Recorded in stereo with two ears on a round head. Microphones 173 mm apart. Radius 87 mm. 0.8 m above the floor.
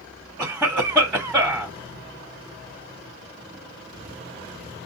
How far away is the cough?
About 1.6 m.